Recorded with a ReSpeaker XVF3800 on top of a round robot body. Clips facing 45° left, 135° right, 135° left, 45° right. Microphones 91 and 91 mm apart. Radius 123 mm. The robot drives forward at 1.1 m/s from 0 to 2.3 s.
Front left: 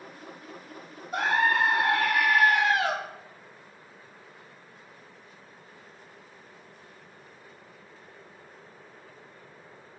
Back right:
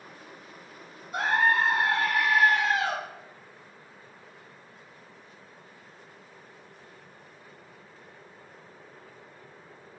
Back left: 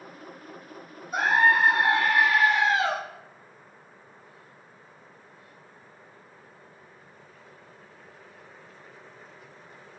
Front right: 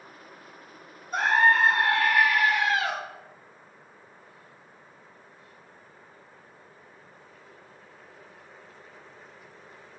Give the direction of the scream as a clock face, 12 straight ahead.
10 o'clock.